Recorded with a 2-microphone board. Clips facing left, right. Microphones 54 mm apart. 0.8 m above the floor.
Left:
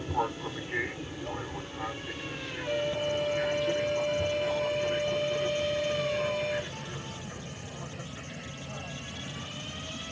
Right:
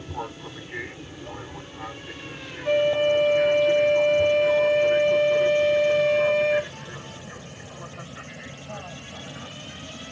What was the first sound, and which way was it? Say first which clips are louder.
An aircraft: left 4 dB; 20° left (ahead or behind).